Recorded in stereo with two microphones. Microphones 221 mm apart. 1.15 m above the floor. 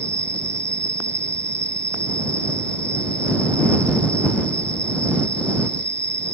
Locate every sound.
0.0 s an insect: 55° right (ahead or behind)